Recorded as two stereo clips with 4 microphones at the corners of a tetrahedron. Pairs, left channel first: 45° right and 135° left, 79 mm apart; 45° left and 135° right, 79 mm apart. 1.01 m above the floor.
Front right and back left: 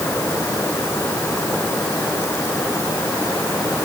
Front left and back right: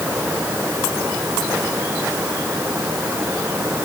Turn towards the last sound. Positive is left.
No sound to turn to.